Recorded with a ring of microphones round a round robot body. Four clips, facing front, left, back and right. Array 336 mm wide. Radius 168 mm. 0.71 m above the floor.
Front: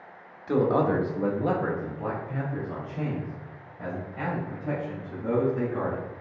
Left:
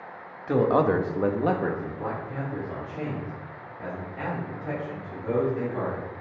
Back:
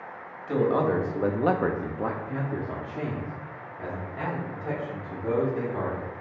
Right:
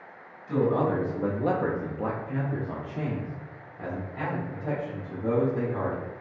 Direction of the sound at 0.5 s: 75° left.